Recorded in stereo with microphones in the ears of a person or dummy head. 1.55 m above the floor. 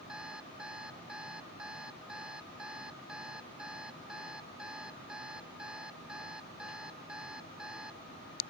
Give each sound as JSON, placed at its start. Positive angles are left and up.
{"t": 0.1, "sound": "an alarm clock", "side_deg": -5}